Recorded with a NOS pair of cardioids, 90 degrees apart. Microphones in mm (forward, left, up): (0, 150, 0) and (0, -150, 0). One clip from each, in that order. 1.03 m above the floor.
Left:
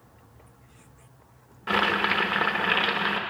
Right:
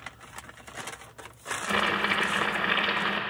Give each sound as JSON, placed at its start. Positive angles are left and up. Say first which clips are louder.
{"t": 1.7, "sound": "boiling", "louder": "left 3 dB", "azimuth_deg": 25, "distance_m": 1.0}